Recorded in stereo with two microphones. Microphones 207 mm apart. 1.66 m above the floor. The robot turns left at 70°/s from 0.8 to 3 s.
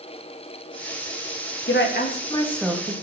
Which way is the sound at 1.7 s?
65° left (ahead or behind).